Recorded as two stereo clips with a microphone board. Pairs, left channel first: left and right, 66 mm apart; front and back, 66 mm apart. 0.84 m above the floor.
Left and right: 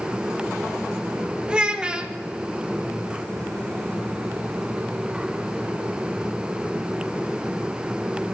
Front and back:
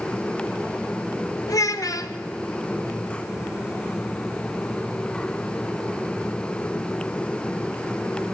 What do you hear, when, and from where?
1.5 s a child speaking: 15° right, 1.0 m